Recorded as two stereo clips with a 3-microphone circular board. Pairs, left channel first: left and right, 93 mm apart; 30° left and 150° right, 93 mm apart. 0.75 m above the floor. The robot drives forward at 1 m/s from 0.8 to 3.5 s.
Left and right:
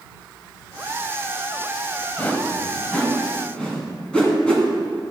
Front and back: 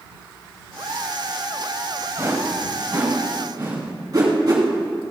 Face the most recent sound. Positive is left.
turn(degrees=170)